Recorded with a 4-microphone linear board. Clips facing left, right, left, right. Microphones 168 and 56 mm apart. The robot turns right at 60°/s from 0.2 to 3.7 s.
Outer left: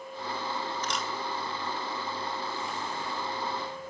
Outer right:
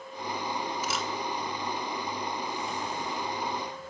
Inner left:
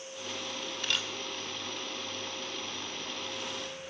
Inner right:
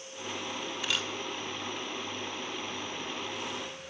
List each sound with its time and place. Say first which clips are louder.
0.8 s a camera shutter: outer right 1 dB, even; 10° right (ahead or behind), 2 m; by 1.1 s 5° left (ahead or behind), 2 m